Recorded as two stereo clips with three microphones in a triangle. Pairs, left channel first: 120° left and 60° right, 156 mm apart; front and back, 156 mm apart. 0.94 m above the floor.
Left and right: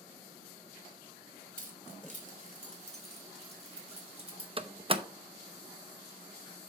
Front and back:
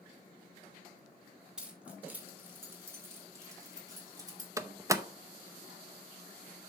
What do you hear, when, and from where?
1.6 s keys jangling: 95° right, 2 m; by 4.5 s 115° right, 3.5 m
4.6 s a door slam: 110° right, 0.6 m